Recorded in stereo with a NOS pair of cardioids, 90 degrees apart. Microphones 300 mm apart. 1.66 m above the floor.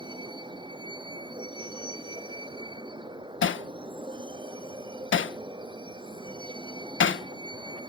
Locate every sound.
0.0 s a vehicle: 15° right
3.4 s hammering: 40° left